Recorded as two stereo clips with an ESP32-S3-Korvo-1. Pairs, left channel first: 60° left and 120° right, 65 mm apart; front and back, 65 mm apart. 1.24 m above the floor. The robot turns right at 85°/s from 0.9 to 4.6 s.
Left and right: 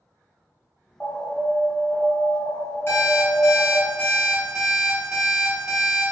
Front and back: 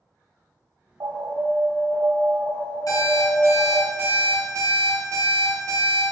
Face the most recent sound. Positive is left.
turn(degrees=160)